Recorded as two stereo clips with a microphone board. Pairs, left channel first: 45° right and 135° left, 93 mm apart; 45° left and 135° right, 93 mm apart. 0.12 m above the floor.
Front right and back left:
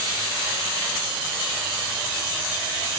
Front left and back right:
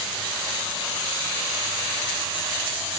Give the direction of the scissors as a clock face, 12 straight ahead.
I don't hear scissors.